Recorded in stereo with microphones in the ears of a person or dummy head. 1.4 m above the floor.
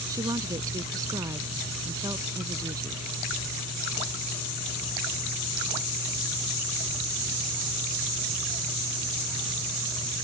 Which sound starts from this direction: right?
A woman speaking, at 0.1 s.